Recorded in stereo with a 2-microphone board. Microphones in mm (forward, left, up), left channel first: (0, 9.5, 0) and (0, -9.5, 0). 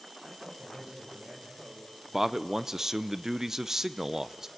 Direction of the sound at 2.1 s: 30° right (ahead or behind).